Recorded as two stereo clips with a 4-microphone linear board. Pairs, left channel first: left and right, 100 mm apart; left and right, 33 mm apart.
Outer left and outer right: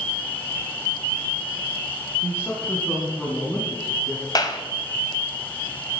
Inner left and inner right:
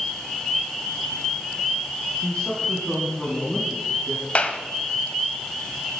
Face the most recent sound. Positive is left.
turn(degrees=40)  # may be behind; listen again after turning